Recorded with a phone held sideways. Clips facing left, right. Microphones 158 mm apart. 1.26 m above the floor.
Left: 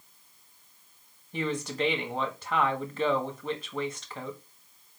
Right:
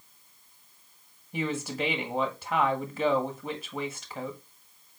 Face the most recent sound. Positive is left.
turn(degrees=-5)  # may be behind; listen again after turning